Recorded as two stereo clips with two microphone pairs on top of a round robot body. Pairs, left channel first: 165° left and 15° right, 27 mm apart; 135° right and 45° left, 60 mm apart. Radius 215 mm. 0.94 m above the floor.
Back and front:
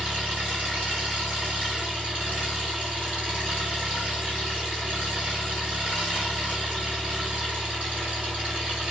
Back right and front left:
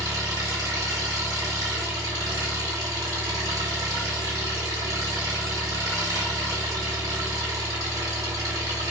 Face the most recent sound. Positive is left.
turn(degrees=30)